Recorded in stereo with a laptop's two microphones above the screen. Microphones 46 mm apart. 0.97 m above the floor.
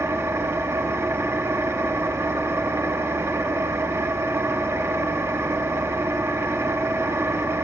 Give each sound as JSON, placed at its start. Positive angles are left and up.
{"t": 0.0, "sound": "an engine running", "side_deg": -65, "distance_m": 0.9}